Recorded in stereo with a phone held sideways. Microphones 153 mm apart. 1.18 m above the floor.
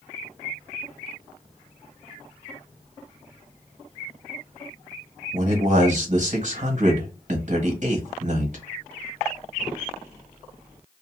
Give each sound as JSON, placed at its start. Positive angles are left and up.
{"t": 5.3, "sound": "a man speaking", "side_deg": -55, "distance_m": 1.2}